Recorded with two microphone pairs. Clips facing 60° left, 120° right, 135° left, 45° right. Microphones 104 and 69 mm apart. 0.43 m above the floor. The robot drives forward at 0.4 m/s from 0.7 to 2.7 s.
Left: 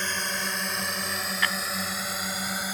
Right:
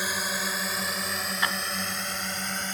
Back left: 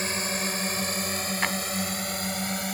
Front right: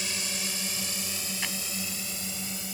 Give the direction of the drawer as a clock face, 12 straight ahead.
6 o'clock.